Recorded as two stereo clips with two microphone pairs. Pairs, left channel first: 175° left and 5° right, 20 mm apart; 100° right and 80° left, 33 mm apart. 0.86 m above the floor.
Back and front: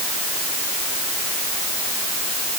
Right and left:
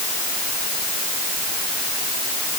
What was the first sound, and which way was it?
Only background noise.